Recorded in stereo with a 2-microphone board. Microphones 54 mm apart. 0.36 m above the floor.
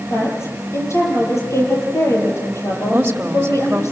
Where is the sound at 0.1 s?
65° left (ahead or behind), 9 m.